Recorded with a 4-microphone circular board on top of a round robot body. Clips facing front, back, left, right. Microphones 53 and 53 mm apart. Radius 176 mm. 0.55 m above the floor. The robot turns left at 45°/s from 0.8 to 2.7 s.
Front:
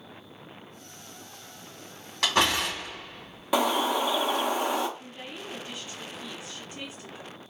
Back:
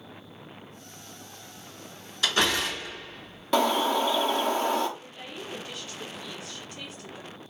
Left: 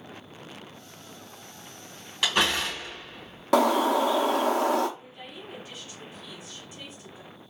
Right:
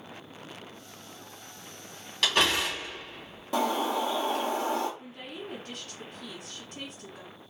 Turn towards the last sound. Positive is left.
turn(degrees=-65)